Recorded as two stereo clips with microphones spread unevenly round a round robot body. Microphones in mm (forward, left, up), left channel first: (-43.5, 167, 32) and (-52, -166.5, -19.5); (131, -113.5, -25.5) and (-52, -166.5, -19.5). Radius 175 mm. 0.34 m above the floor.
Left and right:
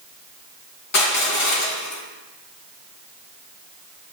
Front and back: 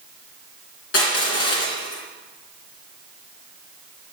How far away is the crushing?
About 3 m.